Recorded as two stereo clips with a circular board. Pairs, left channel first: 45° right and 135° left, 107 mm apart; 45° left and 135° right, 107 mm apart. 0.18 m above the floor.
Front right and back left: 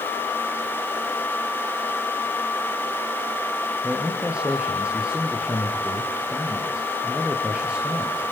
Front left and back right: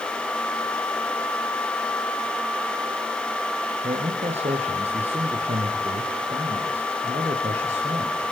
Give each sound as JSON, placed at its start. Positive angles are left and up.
{"t": 3.8, "sound": "a man speaking", "azimuth_deg": -145, "distance_m": 3.5}